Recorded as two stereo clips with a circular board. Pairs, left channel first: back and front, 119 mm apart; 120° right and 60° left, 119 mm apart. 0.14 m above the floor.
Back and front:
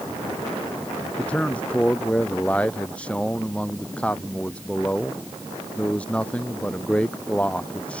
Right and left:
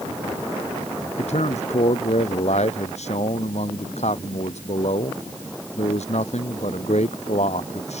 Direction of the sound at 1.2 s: 100° right.